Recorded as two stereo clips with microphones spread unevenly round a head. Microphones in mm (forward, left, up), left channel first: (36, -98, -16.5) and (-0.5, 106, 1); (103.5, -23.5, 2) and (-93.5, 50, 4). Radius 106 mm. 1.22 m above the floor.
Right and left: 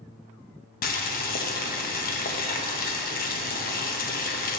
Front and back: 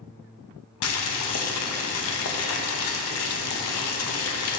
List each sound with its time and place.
0.8 s boiling: 30° right, 0.7 m